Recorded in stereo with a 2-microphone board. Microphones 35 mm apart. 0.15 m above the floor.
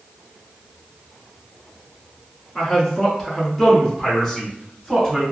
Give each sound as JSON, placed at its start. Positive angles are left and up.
{"t": 2.5, "sound": "a man speaking", "side_deg": 10, "distance_m": 1.5}